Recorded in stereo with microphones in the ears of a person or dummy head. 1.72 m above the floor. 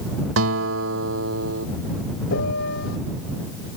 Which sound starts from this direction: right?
A guitar, at 0.4 s.